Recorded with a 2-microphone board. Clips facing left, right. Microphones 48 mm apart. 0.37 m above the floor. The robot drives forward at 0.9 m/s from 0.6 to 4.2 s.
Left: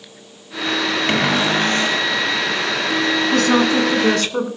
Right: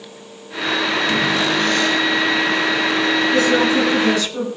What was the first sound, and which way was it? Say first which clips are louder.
A cupboard door: left 3 dB; 45° left (ahead or behind).